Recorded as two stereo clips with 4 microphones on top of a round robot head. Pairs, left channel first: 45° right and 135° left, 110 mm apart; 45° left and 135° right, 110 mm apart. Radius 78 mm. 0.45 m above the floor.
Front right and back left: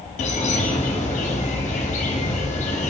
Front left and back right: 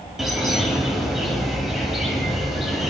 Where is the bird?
50° right, 1.4 m.